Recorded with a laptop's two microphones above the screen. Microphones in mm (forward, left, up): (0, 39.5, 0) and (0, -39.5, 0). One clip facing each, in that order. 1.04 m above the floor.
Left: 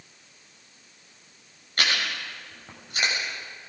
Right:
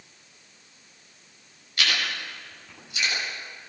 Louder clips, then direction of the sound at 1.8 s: Left 1 dB; 45° left (ahead or behind).